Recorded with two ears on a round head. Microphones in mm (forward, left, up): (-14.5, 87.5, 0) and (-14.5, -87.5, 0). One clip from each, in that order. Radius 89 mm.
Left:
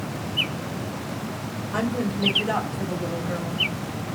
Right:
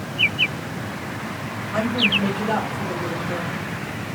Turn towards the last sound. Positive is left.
turn(degrees=50)  # may be behind; listen again after turning